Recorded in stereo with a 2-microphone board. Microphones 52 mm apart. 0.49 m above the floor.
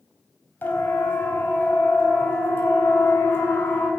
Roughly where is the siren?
Left.